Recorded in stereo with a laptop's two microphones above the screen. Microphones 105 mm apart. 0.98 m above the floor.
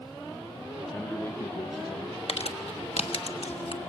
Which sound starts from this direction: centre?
A man speaking, at 0.9 s.